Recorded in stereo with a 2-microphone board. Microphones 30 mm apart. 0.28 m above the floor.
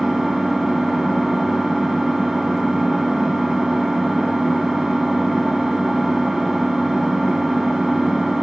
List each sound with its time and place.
0.0 s an engine running: 15° right (ahead or behind), 0.7 m